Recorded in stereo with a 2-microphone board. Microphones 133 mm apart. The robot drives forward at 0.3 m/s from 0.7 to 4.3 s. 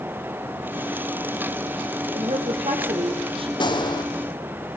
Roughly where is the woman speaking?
Right.